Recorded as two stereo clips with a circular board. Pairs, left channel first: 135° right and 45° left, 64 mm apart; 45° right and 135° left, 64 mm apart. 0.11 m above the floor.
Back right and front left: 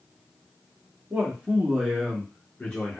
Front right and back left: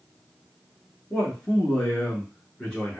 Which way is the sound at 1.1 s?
15° left.